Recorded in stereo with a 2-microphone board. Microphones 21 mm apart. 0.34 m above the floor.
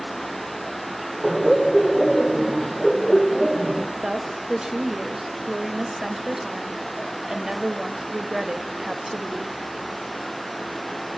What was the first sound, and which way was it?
Laughter, 5° right (ahead or behind).